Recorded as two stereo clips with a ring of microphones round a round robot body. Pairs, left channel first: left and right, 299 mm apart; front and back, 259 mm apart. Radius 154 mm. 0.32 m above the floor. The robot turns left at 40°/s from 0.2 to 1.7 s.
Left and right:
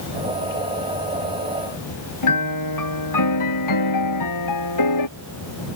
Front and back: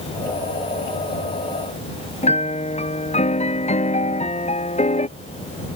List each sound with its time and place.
2.2 s a piano: 65° left